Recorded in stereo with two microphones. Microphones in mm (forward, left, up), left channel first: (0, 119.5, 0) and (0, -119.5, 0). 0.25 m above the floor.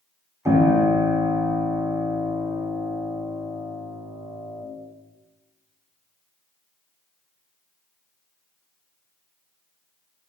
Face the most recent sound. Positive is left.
turn(degrees=-10)  # may be behind; listen again after turning